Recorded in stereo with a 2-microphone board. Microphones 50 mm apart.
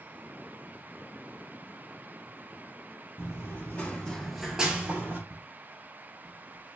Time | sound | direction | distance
3.2 | running footsteps | 50° left (ahead or behind) | 1.1 m
5.3 | footsteps | 40° right (ahead or behind) | 1.1 m